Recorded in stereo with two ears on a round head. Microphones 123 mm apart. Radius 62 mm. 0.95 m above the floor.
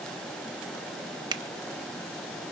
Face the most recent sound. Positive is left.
turn(degrees=-35)  # may be behind; listen again after turning